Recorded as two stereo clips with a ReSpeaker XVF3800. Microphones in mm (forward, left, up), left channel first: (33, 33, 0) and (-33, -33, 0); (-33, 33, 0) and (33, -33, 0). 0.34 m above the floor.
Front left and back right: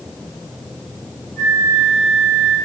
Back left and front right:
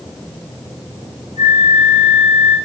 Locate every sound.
1.4 s a flute: 35° right, 4.5 m